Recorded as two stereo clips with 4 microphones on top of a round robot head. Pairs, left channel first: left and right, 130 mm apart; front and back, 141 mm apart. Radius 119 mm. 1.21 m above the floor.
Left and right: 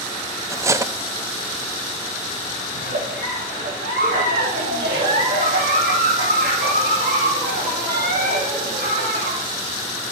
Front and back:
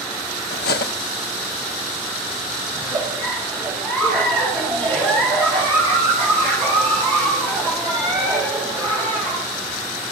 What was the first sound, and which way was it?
Cutlery clinking, 25° right.